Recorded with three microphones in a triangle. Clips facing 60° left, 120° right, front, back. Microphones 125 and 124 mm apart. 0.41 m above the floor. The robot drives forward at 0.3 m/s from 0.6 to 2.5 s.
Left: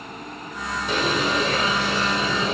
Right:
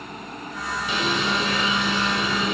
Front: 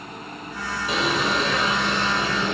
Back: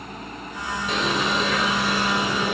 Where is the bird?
85° left, 2 m; by 2.5 s 105° left, 2 m.